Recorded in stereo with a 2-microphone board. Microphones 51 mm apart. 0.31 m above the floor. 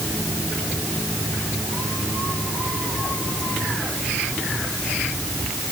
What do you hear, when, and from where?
Only background noise.